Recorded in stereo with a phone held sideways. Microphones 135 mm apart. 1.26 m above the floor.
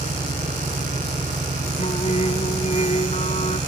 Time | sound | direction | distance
0.0 | an engine running | 70° right (ahead or behind) | ?
1.8 | singing | 55° left (ahead or behind) | ?